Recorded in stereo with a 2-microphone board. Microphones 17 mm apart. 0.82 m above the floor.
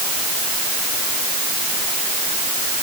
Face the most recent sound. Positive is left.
No sound to turn to.